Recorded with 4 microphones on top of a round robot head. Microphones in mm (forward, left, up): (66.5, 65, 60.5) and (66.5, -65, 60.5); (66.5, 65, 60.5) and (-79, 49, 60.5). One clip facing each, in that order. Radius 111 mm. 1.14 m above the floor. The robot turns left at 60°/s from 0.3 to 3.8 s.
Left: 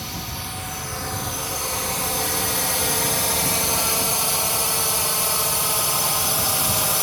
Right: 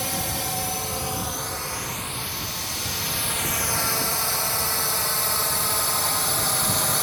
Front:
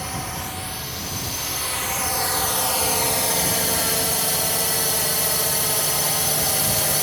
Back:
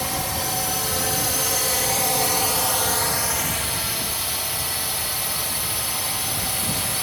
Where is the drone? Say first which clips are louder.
Right 4 dB, back 3 dB; 115° right; by 7.0 s 15° left.